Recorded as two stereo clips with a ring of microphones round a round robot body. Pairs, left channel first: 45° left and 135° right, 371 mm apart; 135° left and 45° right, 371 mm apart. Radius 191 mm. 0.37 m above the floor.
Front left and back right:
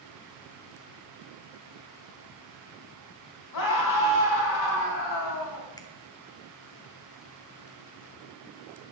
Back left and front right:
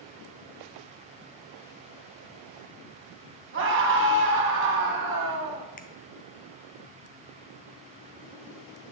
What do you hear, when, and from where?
3.5 s a scream: 10° left, 3.5 m
5.8 s a finger snap: 110° left, 1.0 m